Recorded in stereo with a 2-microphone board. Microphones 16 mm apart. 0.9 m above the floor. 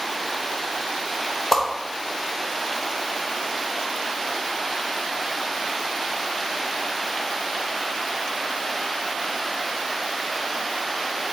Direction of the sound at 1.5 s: 20° left (ahead or behind).